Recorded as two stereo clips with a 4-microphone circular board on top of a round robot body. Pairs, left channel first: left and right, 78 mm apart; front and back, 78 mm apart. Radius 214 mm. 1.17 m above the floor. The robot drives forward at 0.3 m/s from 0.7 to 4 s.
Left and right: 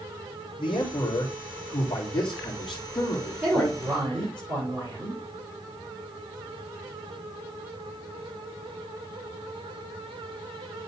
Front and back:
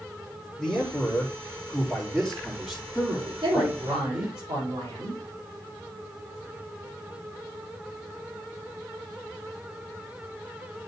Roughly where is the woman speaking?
Behind right.